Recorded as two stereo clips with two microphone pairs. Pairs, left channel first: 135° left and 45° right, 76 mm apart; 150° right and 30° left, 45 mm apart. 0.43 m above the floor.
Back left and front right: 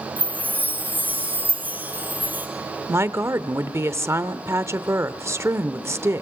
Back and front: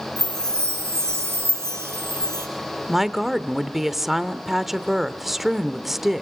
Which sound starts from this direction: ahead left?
A chime, at 0.2 s.